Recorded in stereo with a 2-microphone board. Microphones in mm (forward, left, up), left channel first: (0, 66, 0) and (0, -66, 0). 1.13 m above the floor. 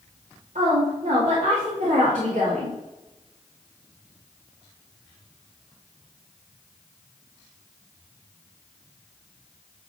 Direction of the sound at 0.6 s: 70° right (ahead or behind).